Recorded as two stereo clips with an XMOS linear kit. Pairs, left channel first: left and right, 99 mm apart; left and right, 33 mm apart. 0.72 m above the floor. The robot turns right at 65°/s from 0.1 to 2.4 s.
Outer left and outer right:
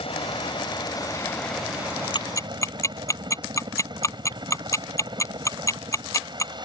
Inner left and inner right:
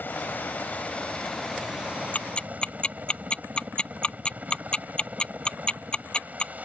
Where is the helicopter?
85° left; by 6.7 s 130° right.